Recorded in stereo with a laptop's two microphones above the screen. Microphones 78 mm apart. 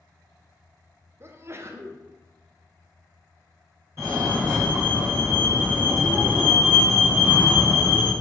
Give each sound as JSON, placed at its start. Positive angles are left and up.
{"t": 1.2, "sound": "a sneeze", "side_deg": -35, "distance_m": 0.5}
{"t": 4.0, "sound": "a fire alarm", "side_deg": -35, "distance_m": 1.8}